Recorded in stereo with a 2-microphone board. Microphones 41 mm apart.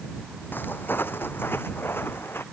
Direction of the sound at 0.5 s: 55° left (ahead or behind).